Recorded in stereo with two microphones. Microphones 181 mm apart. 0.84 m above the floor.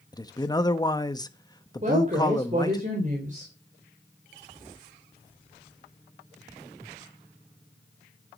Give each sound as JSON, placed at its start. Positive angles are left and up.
{"t": 0.1, "sound": "a man speaking", "side_deg": 20, "distance_m": 1.2}
{"t": 1.8, "sound": "a woman speaking", "side_deg": -40, "distance_m": 4.0}